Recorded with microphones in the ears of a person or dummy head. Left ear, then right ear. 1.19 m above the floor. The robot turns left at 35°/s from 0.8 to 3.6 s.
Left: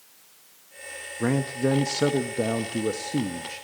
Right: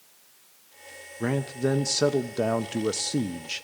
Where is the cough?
No cough in this recording.